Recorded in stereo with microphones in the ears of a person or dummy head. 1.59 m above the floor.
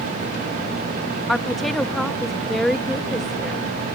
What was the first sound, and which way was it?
A woman speaking, 10° left (ahead or behind).